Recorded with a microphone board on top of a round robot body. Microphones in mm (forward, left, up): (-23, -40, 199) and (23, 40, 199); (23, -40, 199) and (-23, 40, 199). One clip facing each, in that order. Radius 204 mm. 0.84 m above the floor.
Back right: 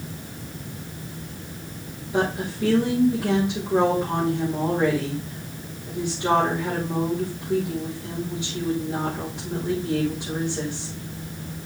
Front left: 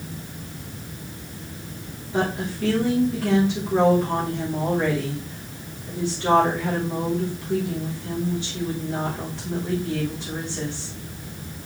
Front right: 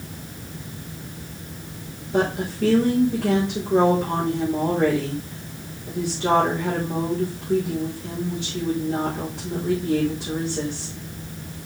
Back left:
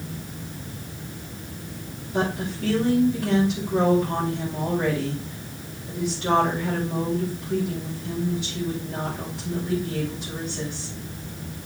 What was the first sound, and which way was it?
A woman speaking, 45° right.